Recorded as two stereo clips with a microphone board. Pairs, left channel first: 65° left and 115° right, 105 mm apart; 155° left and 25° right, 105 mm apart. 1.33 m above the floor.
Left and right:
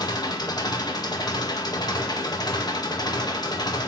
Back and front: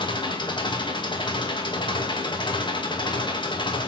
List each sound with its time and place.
0.0 s an engine running: 115° left, 1.6 m